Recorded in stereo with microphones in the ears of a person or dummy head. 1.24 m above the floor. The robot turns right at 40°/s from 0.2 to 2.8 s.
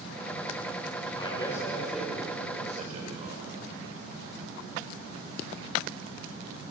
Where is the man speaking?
30° left (ahead or behind), 5.5 m; by 3.5 s 35° right (ahead or behind), 5.5 m.